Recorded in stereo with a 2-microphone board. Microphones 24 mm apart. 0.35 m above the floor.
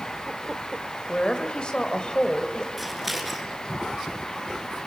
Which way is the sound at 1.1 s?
40° left (ahead or behind).